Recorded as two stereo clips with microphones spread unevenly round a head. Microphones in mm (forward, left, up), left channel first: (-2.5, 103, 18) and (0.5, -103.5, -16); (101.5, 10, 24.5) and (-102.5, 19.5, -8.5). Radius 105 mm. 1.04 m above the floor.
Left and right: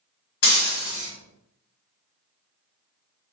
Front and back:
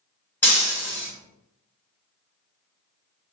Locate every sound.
0.4 s breaking glass: 75° left, 1.5 m